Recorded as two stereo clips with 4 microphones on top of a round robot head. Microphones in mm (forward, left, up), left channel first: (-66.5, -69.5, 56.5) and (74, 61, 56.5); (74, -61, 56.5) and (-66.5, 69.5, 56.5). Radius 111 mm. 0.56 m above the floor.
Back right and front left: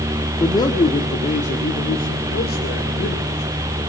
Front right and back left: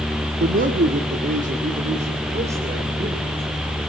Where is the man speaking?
155° left, 1.6 m; by 3.5 s 165° right, 3.5 m.